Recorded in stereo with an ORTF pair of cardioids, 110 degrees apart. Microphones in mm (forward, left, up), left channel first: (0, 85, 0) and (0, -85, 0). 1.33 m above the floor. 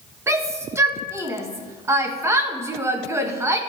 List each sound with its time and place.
0.3 s a shout: 15° right, 1.7 m